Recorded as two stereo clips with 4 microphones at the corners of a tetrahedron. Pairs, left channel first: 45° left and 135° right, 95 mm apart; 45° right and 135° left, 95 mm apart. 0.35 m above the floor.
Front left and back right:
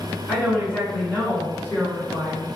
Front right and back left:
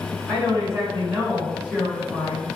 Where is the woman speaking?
115° left, 1.7 m; by 2.6 s 20° left, 1.4 m.